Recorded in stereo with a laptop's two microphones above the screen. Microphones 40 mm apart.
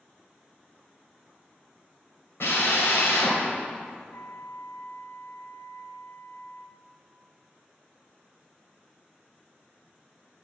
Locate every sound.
2.4 s a drill: 85° left, 4.5 m
4.1 s a flute: 75° left (ahead or behind), 0.7 m